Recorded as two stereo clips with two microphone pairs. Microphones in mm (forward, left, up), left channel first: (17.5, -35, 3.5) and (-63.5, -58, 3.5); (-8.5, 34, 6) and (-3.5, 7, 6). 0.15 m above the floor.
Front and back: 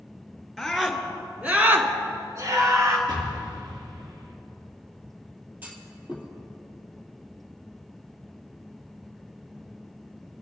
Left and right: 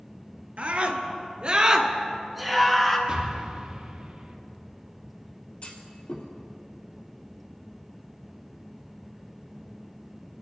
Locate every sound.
0.6 s a scream: 75° right, 2.5 m; by 3.0 s 165° left, 1.9 m
3.1 s an explosion: 135° right, 2.5 m
5.6 s a clunk: 130° left, 2.5 m